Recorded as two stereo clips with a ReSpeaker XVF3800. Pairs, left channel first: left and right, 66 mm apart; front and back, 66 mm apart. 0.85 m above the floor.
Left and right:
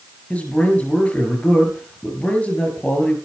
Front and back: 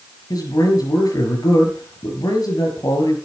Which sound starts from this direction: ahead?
A man speaking, at 0.3 s.